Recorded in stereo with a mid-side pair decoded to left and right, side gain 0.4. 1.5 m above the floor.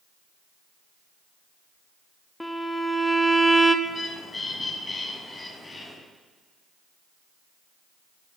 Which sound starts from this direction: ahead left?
A bird, at 3.9 s.